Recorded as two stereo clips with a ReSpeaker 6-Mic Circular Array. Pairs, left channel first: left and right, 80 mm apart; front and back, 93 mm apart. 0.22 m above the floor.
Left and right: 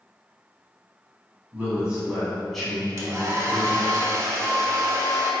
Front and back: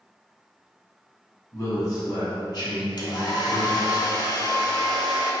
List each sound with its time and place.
1.5 s a man speaking: 30° right, 1.2 m; by 4.0 s 25° left, 1.9 m
3.0 s a hair dryer: 40° right, 0.6 m